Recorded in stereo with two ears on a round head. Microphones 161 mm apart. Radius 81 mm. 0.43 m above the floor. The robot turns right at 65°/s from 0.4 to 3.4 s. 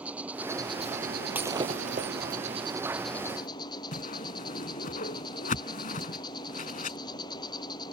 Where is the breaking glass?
170° right; by 2.1 s 120° right.